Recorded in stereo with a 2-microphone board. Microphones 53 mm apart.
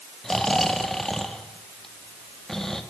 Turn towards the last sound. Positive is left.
turn(degrees=10)  # may be behind; listen again after turning